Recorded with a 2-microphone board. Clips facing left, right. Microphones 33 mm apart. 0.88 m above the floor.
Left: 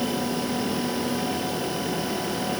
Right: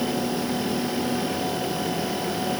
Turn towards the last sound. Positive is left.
No sound to turn to.